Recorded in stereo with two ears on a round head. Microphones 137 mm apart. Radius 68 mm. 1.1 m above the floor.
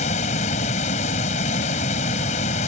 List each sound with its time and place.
0.0 s running water: 50° left (ahead or behind)